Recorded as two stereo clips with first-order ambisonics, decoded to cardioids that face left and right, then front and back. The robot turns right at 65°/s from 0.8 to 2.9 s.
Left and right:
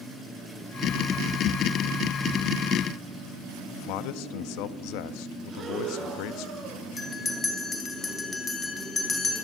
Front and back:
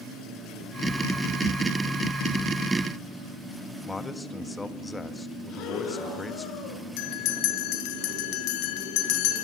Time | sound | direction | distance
3.9 | a man speaking | 80° left | 1.3 m
5.5 | breathing | 20° right | 7 m
7.0 | a bell | 15° left | 3 m